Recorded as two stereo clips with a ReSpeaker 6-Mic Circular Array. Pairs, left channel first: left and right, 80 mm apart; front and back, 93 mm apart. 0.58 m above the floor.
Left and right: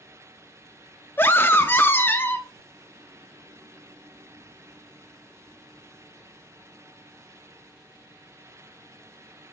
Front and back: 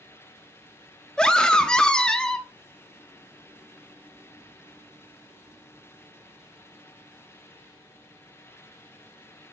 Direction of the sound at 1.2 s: 75° left.